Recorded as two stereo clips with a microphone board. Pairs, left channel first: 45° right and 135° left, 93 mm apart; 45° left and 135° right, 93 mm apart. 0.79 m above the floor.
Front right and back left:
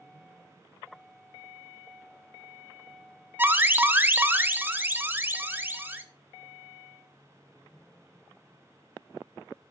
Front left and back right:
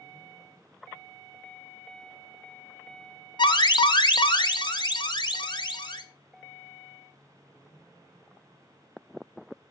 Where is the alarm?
70° left, 1.0 m.